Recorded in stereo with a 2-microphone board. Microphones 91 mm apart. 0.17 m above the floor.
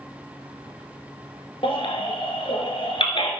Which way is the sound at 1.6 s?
65° left (ahead or behind).